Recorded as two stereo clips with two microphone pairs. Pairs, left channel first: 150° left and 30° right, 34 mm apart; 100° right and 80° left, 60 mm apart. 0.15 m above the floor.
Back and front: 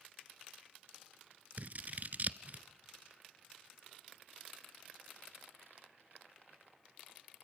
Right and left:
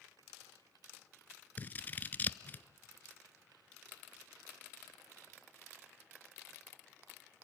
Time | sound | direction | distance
1.6 | scissors | 50° right | 0.6 m